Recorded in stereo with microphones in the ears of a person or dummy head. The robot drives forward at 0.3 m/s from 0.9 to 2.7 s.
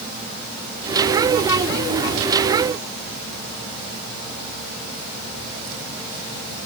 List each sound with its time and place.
Only background noise.